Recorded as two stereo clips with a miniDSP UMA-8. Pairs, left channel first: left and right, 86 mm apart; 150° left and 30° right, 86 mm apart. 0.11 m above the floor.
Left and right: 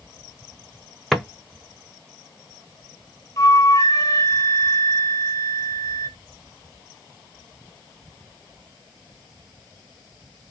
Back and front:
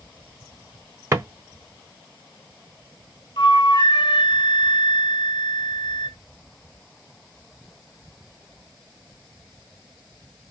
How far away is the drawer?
About 0.8 m.